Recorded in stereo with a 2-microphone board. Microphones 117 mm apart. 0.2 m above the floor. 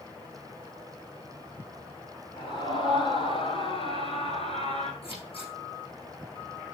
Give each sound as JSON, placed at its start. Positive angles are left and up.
{"t": 2.4, "sound": "a scream", "side_deg": 45, "distance_m": 4.5}
{"t": 5.0, "sound": "scissors", "side_deg": 55, "distance_m": 7.0}